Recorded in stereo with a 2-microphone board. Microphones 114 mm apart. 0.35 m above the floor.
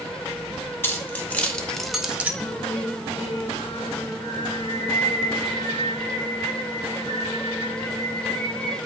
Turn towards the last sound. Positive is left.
turn(degrees=45)  # may be behind; listen again after turning